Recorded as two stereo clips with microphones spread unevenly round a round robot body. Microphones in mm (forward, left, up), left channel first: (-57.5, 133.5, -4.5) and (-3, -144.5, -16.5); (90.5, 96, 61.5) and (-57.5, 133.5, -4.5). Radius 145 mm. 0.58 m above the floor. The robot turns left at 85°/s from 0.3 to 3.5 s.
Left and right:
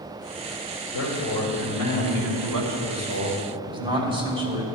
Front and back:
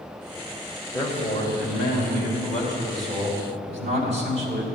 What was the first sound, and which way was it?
A man speaking, 65° left.